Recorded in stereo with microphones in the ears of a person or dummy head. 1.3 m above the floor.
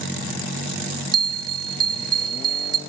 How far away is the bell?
About 0.6 m.